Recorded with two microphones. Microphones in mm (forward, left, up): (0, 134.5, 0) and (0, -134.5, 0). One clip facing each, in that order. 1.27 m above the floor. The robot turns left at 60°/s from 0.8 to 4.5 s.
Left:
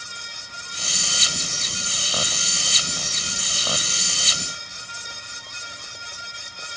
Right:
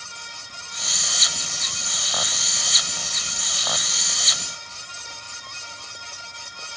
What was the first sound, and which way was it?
Only background noise.